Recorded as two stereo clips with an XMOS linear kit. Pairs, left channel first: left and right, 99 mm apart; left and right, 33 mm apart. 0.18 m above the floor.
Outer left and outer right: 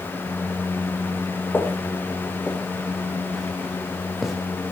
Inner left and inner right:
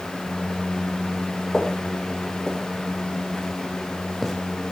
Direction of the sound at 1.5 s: 20° left (ahead or behind).